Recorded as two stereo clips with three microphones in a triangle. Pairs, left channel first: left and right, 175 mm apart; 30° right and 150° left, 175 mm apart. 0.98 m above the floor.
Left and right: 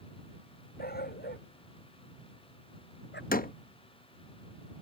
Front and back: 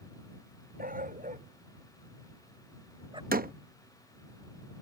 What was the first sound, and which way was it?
A dog barking, 115° left.